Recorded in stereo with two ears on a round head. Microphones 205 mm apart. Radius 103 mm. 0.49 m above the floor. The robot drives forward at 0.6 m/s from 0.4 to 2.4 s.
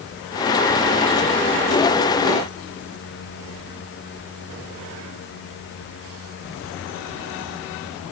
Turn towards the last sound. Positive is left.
No sound to turn to.